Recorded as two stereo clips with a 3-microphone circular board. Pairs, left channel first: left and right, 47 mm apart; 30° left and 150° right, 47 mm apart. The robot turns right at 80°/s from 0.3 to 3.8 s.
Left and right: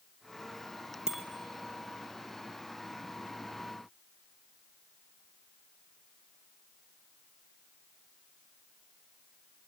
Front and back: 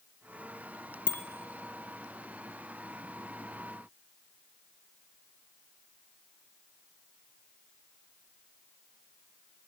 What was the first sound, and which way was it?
A bicycle bell, 15° right.